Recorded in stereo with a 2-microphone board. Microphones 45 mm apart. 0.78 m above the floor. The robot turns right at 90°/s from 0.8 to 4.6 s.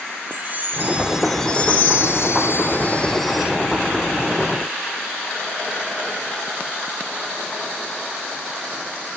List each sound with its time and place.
0.3 s a chime: 40° right, 3 m; by 3.5 s 155° right, 3 m